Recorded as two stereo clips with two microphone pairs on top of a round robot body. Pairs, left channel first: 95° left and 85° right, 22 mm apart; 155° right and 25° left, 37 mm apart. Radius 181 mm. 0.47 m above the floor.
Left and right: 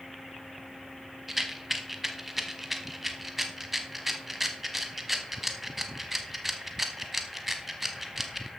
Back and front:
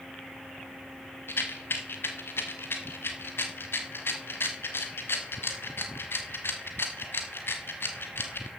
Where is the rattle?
165° right, 0.9 m.